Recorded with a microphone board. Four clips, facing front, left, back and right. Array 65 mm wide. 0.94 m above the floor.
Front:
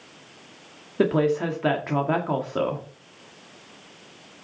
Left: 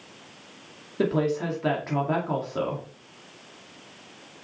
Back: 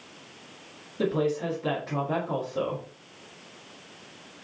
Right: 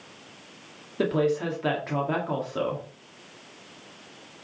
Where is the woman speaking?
5° left, 2 m.